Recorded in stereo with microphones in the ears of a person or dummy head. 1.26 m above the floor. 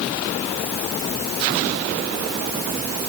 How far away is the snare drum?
No snare drum in this recording.